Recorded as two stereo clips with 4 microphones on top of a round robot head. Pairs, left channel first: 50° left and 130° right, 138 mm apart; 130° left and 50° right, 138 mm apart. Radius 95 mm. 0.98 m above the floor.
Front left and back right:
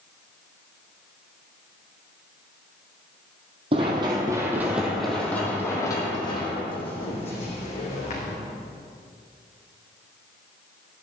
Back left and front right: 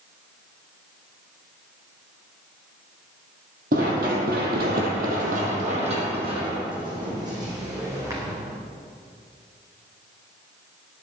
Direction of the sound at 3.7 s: 80° right.